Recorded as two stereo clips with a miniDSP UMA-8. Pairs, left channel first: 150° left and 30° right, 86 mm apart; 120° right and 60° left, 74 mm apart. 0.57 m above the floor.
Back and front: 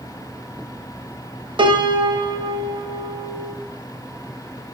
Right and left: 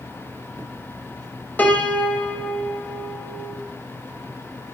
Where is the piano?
55° right, 1.0 m.